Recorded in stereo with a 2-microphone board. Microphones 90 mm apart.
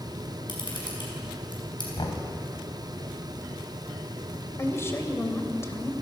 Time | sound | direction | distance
0.5 | a camera shutter | 60° left (ahead or behind) | 6 m
2.0 | knocking | 65° left (ahead or behind) | 2.5 m
4.6 | a woman speaking | 30° left (ahead or behind) | 2.5 m